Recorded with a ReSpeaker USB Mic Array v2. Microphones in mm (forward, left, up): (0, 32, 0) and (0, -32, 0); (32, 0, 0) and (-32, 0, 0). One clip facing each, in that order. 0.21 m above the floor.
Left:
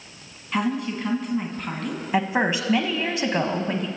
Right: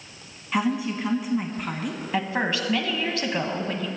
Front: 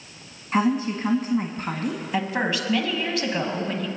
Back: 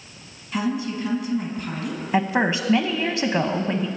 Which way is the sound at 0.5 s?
5° right.